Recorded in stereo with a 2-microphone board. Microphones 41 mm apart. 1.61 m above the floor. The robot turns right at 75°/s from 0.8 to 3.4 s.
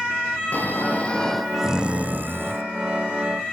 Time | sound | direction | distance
0.5 | snoring | 130° left | 0.6 m